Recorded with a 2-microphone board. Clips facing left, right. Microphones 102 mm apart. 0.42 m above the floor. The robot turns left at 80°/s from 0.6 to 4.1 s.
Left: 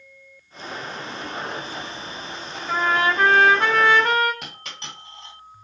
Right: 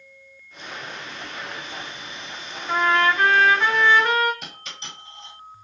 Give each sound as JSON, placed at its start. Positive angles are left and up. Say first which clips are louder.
{"t": 2.7, "sound": "a trumpet", "louder": "right 1 dB", "azimuth_deg": 180, "distance_m": 1.2}
{"t": 4.4, "sound": "a dropped coin", "louder": "left 1 dB", "side_deg": 75, "distance_m": 1.4}